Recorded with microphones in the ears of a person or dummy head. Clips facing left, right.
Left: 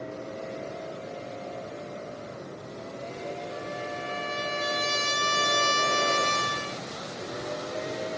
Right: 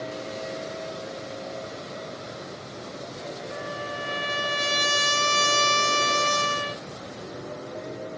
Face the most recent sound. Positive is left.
turn(degrees=-50)  # may be behind; listen again after turning